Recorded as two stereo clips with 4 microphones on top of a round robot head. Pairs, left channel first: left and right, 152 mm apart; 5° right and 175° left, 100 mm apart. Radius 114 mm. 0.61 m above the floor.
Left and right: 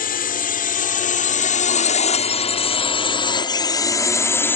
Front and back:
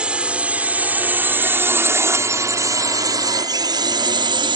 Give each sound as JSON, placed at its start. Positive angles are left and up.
{"t": 0.0, "sound": "a drone", "azimuth_deg": 100}